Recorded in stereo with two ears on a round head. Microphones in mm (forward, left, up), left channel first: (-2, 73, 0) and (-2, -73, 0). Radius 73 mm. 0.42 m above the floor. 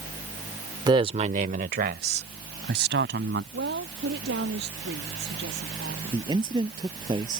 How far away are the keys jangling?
I don't hear keys jangling.